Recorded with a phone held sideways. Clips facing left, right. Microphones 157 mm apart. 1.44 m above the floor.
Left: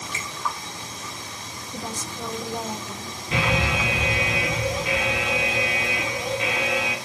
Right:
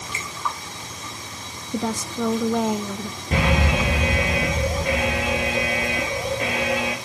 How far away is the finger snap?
About 4 m.